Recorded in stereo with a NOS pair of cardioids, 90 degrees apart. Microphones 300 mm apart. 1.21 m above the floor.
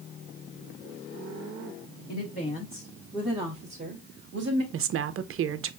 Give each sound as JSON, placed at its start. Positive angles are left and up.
{"t": 2.1, "sound": "a woman speaking", "azimuth_deg": 35, "distance_m": 1.3}
{"t": 4.7, "sound": "a woman speaking", "azimuth_deg": -45, "distance_m": 0.6}